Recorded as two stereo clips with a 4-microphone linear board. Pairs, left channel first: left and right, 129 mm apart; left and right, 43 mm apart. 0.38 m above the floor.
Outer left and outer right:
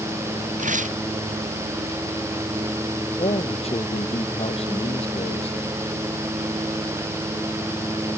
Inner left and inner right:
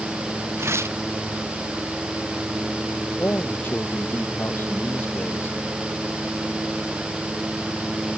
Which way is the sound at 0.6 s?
85° right.